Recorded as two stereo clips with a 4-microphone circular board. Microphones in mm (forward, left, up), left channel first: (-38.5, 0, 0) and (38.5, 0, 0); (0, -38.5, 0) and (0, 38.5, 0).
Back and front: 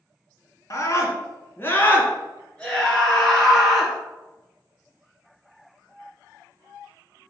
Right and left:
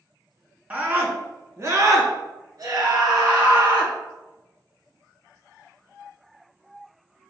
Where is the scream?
155° left, 2 m; by 3.9 s 90° left, 3.5 m.